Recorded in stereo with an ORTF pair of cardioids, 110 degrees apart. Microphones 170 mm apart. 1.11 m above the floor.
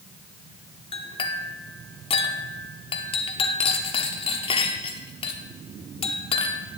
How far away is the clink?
About 1.3 m.